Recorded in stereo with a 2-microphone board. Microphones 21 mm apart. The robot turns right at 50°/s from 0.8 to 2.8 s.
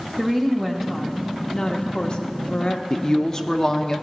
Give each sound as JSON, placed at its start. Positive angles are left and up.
{"t": 0.2, "sound": "a woman speaking", "azimuth_deg": -15, "distance_m": 0.9}
{"t": 2.9, "sound": "a woman speaking", "side_deg": 25, "distance_m": 0.6}